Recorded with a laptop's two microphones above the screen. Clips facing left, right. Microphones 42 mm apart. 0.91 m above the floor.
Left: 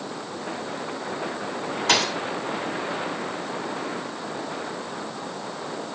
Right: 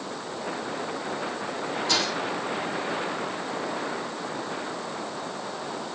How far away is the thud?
About 1.9 m.